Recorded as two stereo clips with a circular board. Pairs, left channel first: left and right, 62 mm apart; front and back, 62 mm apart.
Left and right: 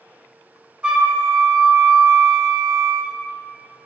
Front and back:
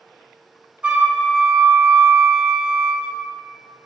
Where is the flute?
140° right, 1.0 m.